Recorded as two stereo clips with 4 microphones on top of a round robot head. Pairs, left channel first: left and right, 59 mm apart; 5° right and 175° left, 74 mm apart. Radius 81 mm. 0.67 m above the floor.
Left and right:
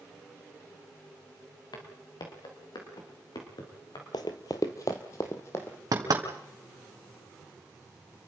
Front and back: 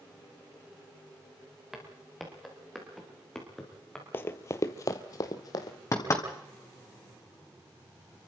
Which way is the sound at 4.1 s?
55° left.